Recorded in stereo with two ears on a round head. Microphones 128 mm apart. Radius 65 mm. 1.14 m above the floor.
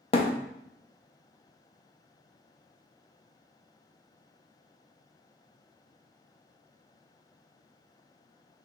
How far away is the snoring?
I don't hear snoring.